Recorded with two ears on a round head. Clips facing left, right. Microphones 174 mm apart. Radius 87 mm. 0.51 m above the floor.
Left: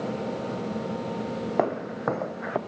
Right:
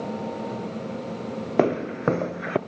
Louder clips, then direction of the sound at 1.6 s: Right 6 dB; 35° right (ahead or behind).